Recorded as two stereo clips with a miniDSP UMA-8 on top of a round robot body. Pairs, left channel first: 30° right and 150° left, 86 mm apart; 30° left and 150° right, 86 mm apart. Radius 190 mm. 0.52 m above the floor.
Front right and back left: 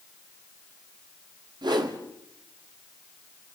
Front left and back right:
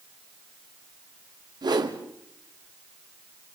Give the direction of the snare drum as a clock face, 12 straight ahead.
No snare drum in this recording.